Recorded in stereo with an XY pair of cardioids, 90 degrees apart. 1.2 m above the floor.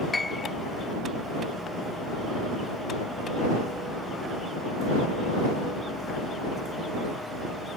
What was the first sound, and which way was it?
A piano, 20° left.